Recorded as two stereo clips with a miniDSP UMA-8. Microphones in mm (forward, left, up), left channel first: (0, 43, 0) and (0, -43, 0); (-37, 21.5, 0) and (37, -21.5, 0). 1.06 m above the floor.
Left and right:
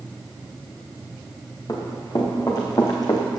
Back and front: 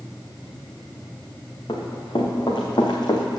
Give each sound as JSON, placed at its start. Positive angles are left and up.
{"t": 1.7, "sound": "running footsteps", "azimuth_deg": 130, "distance_m": 3.5}